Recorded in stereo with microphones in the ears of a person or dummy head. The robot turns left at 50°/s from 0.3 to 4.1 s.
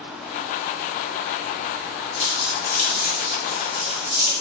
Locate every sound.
2.2 s crumpling: 40° left (ahead or behind), 1.0 m; by 4.3 s 40° right (ahead or behind), 1.0 m